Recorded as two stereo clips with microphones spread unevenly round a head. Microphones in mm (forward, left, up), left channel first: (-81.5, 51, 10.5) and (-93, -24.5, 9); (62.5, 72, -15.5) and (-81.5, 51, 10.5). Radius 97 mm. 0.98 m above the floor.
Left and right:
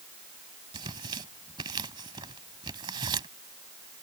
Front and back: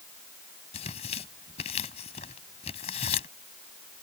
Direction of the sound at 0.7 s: 50° right.